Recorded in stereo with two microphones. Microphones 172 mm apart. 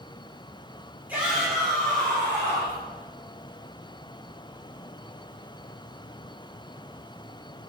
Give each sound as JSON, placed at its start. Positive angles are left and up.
{"t": 1.1, "sound": "a shout", "side_deg": -10, "distance_m": 1.9}